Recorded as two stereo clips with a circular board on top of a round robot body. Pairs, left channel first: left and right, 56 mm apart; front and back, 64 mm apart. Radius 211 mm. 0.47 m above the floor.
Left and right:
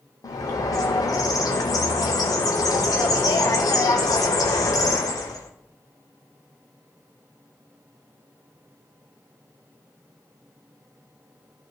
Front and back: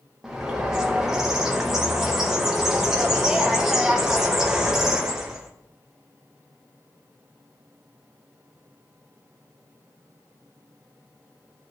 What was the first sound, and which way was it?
A bird, 100° left.